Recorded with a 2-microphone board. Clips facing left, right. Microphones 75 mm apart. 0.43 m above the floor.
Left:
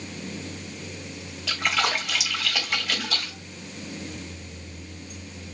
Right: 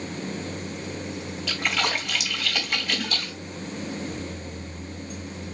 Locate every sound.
1.5 s a splash: 5° left (ahead or behind), 2.5 m